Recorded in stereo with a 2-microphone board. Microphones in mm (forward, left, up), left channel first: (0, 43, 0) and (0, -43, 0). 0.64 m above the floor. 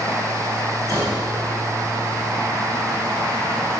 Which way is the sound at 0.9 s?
40° right (ahead or behind).